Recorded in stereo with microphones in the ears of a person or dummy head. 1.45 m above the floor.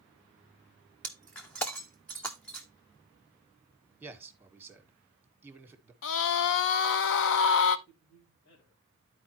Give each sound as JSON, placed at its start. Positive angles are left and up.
{"t": 1.0, "sound": "breaking glass", "side_deg": 5, "distance_m": 0.5}
{"t": 4.0, "sound": "a man speaking", "side_deg": -15, "distance_m": 1.5}
{"t": 6.0, "sound": "a scream", "side_deg": 65, "distance_m": 0.8}
{"t": 7.9, "sound": "a man speaking", "side_deg": 75, "distance_m": 3.0}